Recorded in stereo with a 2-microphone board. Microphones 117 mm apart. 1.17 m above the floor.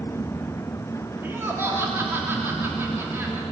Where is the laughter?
20° right (ahead or behind), 3 m.